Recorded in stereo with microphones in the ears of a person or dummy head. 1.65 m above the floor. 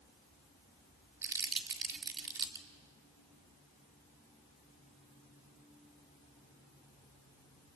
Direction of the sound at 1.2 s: 20° right (ahead or behind).